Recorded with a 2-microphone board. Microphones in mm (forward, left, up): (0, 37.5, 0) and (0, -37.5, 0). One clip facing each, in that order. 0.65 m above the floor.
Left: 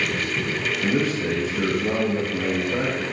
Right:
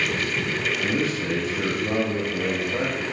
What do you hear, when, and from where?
0.8 s a man speaking: 40° left (ahead or behind), 5.5 m